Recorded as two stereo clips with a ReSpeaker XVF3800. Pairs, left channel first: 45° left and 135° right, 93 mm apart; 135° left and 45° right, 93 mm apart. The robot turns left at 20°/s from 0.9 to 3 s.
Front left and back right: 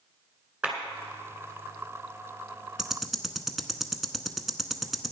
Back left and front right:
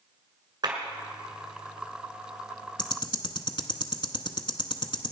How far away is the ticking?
About 0.8 m.